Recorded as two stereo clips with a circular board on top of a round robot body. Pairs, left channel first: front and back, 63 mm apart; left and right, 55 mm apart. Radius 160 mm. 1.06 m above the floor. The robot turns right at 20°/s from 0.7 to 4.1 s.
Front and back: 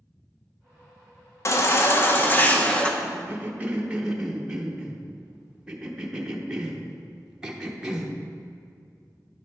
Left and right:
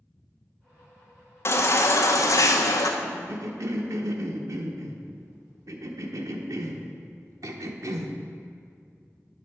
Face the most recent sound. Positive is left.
turn(degrees=-100)